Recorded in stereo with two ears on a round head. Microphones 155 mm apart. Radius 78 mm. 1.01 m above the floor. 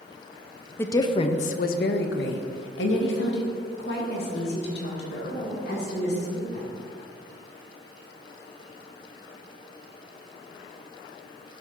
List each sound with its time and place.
0.8 s a woman speaking: 15° left (ahead or behind), 0.6 m; by 6.7 s 65° left (ahead or behind), 3 m